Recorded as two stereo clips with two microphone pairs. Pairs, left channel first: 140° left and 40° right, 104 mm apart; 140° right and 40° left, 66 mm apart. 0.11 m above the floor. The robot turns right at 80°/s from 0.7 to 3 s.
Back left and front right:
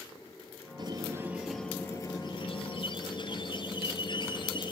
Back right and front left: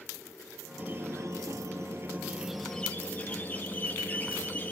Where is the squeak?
15° right, 1.2 m; by 4.7 s 160° left, 1.2 m.